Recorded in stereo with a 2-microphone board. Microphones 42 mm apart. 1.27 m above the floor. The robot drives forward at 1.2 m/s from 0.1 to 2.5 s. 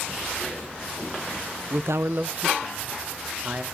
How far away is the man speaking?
About 0.6 m.